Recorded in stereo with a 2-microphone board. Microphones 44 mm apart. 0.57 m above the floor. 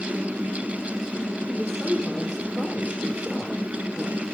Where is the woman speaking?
10° left (ahead or behind), 1.7 m.